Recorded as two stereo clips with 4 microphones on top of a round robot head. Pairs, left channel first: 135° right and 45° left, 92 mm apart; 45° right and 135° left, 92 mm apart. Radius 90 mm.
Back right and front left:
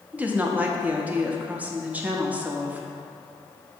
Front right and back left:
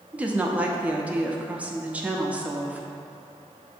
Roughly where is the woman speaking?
Left.